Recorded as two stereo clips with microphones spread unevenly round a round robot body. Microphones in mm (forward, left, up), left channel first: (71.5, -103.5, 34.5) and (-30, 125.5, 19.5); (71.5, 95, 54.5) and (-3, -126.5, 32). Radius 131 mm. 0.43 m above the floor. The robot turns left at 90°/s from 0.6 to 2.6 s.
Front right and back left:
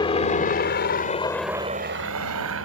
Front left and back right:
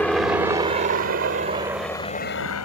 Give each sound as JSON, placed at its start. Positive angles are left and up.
{"t": 0.0, "sound": "a helicopter", "azimuth_deg": -15}